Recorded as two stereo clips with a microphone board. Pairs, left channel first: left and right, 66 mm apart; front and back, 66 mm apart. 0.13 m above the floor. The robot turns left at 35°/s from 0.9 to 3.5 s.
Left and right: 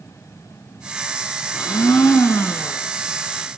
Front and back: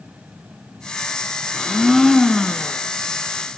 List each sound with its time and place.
1.5 s a blender: 100° left, 1.3 m; by 2.8 s 55° left, 1.3 m